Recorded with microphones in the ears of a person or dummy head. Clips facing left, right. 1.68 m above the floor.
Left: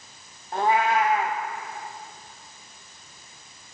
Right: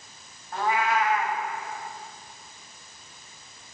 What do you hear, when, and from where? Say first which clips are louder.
0.5 s a cat meowing: left 3 dB; 20° left (ahead or behind), 0.9 m